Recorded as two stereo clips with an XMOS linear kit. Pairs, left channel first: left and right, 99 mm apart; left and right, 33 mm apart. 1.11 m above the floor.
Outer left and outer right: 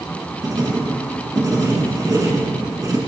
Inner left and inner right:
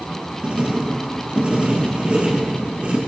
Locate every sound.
0.4 s writing: 40° right (ahead or behind), 3.5 m